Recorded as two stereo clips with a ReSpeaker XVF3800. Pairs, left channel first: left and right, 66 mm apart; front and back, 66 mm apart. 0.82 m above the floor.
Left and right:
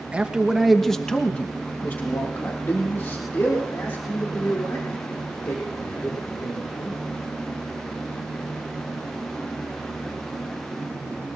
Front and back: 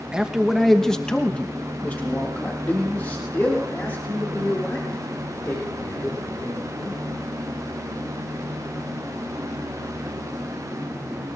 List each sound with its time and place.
0.1 s a man speaking: 125° right, 1.1 m; by 7.0 s 50° left, 5 m